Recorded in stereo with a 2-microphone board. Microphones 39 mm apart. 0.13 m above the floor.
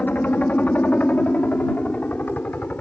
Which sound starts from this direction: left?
A helicopter, at 0.0 s.